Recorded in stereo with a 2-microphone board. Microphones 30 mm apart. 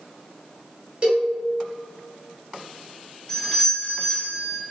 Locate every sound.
1.0 s a cowbell: 30° right (ahead or behind), 1.8 m
3.3 s a doorbell: 15° left (ahead or behind), 1.9 m